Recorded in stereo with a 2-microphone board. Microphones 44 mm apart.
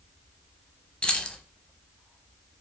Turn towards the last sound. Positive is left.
turn(degrees=20)  # may be behind; listen again after turning